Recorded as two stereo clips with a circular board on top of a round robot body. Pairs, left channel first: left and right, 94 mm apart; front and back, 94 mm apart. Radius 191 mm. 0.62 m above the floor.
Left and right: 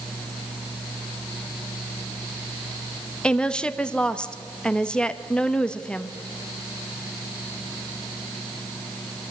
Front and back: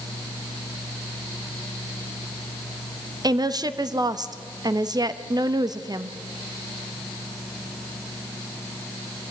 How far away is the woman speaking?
About 1.3 m.